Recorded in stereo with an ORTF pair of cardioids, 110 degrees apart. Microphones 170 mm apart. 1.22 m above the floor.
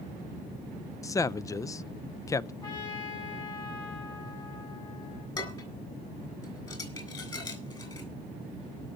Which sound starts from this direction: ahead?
A man speaking, at 1.0 s.